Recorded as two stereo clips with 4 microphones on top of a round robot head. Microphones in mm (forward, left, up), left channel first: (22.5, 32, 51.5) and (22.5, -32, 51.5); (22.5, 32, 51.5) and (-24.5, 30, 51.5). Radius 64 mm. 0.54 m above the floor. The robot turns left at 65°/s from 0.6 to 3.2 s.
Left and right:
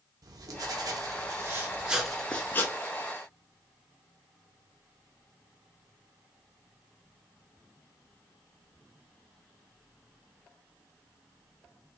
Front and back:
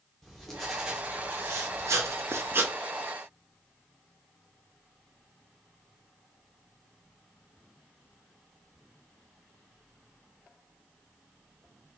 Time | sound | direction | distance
0.2 | writing | 85° right | 0.8 m